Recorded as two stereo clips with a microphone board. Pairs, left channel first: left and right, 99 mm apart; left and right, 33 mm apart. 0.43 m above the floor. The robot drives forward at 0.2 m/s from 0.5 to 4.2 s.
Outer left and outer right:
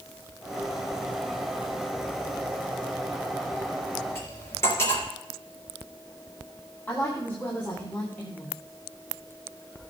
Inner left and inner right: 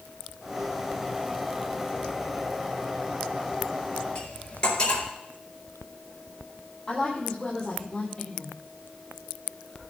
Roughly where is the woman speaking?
Centre.